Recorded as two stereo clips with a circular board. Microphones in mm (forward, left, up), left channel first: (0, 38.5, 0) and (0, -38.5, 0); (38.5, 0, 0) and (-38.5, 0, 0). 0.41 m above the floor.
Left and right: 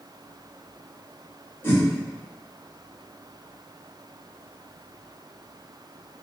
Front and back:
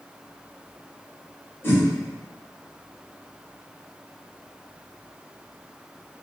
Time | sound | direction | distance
1.6 | a whoosh | 45° left | 1.7 m